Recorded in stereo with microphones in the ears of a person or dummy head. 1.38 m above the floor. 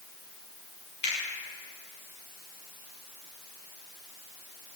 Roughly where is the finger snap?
Left.